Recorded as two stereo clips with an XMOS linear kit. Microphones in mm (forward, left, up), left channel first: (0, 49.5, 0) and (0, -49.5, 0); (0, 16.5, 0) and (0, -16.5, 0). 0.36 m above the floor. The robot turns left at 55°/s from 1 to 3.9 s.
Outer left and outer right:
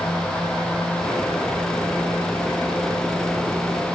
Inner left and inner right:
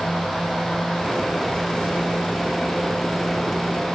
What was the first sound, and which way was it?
Only background noise.